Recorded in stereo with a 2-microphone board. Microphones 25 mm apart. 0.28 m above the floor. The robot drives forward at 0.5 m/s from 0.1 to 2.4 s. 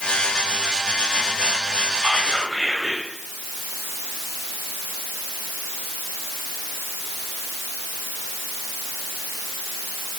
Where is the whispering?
15° right (ahead or behind), 0.9 m; by 3.0 s 10° right (ahead or behind), 1.0 m.